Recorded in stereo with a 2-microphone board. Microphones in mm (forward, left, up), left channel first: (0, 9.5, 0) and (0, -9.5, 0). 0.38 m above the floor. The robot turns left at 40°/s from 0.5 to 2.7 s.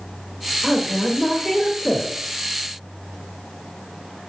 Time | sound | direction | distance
0.6 | a woman speaking | 145° left | 1.1 m